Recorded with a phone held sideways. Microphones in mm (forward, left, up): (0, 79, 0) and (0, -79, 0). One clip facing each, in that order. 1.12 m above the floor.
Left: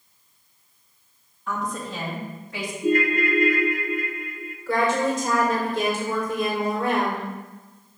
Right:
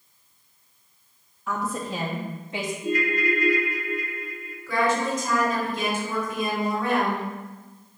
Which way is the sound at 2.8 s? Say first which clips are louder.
Left 5 dB; 50° left (ahead or behind).